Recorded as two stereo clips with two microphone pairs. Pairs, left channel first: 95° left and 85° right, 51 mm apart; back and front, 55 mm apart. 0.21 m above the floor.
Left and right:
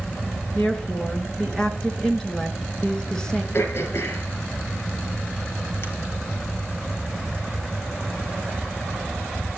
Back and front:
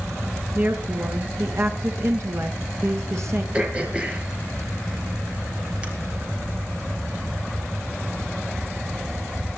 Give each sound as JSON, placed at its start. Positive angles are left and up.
{"t": 0.6, "sound": "a woman speaking", "azimuth_deg": 20, "distance_m": 3.0}
{"t": 3.5, "sound": "throat clearing", "azimuth_deg": 70, "distance_m": 4.5}